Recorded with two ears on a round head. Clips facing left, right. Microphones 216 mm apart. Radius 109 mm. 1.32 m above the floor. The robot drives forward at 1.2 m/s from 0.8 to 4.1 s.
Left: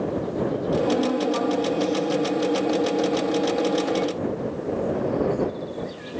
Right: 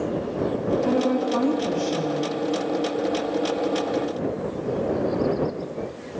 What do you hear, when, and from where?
0.8 s a woman speaking: 35° right (ahead or behind), 2.5 m; by 2.3 s 75° right (ahead or behind), 1.6 m